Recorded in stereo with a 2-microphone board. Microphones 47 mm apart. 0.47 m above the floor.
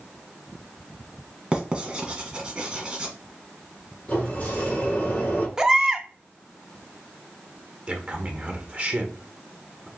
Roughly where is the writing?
Right.